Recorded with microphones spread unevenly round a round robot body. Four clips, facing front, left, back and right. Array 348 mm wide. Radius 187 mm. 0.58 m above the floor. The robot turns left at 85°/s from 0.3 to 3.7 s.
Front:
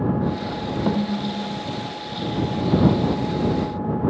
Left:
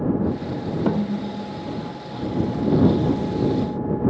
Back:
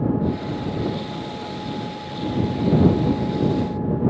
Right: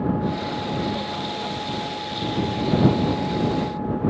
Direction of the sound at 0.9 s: 50° left.